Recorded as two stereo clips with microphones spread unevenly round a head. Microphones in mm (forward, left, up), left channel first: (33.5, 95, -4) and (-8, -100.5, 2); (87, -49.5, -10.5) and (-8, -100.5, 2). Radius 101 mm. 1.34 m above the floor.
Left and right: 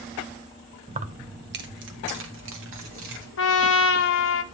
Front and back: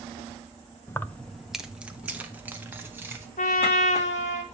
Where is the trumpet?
55° left, 0.8 m.